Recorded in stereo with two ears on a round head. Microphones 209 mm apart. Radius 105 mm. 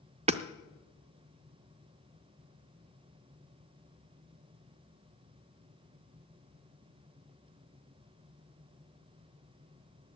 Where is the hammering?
25° right (ahead or behind), 0.5 m.